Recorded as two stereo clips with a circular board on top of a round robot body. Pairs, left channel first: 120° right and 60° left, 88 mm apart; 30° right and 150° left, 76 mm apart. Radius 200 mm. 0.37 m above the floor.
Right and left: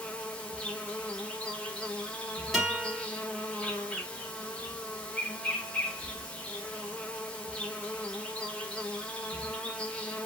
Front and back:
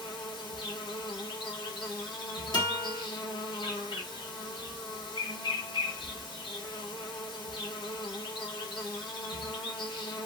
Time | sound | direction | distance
0.0 | an insect | 40° right | 0.9 m
2.5 | a guitar | 35° right | 3 m